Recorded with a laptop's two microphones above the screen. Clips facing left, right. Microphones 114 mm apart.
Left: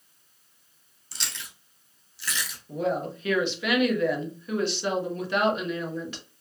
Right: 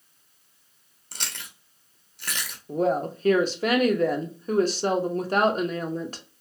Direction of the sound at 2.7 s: 40° right (ahead or behind).